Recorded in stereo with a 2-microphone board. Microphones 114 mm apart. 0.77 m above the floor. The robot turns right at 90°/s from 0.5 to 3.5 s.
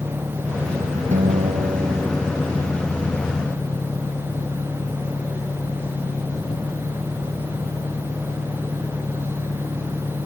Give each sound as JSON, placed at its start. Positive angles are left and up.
{"t": 0.0, "sound": "an engine running", "azimuth_deg": -150}
{"t": 1.1, "sound": "a guitar", "azimuth_deg": -105}